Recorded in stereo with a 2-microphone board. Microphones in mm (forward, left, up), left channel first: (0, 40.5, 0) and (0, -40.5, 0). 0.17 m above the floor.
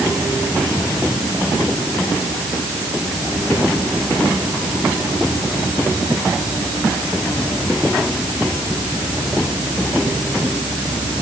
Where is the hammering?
No hammering in this recording.